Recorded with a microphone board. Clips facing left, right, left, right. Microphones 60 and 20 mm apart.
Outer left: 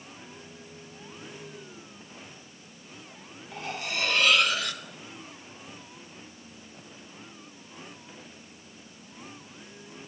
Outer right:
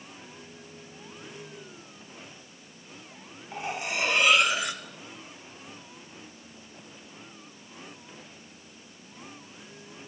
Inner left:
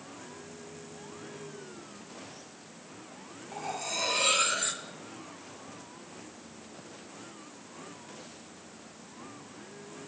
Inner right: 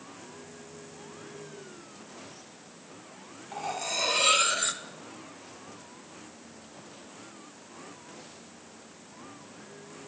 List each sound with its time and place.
3.5 s cutlery clinking: 20° right (ahead or behind), 1.1 m